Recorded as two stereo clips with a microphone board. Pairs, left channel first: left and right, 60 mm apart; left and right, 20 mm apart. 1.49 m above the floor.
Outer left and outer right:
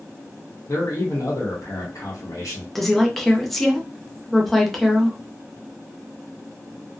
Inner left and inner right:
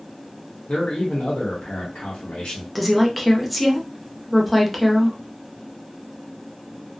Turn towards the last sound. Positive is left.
turn(degrees=0)  # may be behind; listen again after turning